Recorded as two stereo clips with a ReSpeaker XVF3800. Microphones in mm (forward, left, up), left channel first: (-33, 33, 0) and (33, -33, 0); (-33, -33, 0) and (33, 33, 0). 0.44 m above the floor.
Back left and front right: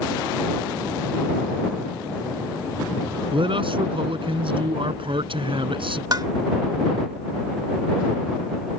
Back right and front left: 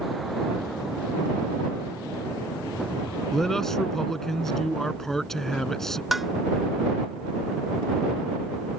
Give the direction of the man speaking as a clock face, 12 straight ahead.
2 o'clock.